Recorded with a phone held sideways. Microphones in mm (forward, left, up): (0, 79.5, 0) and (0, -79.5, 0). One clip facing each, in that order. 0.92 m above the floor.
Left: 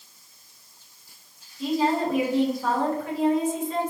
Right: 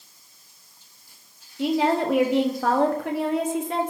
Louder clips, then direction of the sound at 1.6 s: Right 2 dB; 70° right (ahead or behind).